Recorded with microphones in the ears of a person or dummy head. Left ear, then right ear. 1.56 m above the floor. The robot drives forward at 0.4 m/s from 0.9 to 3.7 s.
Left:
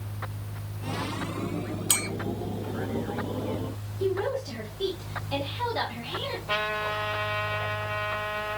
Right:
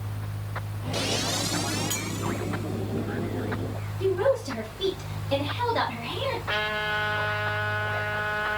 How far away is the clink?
About 0.7 m.